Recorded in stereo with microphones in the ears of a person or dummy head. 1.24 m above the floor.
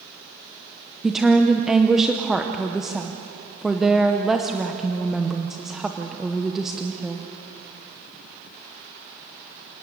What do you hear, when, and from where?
1.0 s a woman speaking: 5° right (ahead or behind), 0.8 m